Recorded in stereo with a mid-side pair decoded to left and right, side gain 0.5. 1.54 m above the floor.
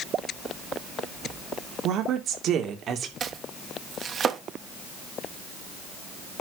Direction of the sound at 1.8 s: 65° right.